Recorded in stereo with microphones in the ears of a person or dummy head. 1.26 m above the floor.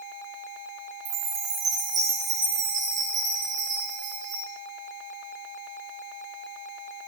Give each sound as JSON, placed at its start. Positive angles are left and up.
{"t": 1.1, "sound": "a chime", "side_deg": -20, "distance_m": 9.5}